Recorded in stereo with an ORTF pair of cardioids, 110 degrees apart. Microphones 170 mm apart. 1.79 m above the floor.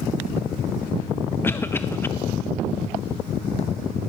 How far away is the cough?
About 0.6 m.